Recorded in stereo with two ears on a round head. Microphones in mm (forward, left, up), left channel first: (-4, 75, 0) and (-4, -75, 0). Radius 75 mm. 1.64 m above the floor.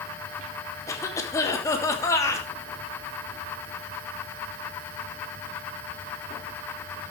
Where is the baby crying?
No baby crying in this recording.